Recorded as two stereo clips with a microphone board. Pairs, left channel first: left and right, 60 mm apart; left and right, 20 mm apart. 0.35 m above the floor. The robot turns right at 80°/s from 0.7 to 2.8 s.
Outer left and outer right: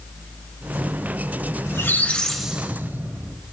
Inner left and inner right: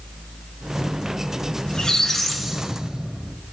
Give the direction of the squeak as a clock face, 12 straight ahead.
8 o'clock.